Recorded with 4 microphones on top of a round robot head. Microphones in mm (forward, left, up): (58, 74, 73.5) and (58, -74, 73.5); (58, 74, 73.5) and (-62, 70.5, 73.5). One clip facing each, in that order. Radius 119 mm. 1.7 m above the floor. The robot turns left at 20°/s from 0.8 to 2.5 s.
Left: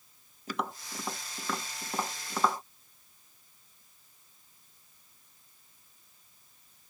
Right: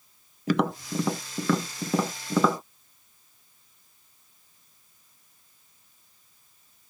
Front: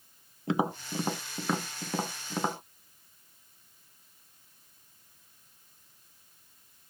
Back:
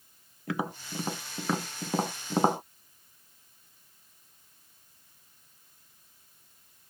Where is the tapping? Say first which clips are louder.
Right 11 dB, front 4 dB; 75° right; by 2.6 s 110° right.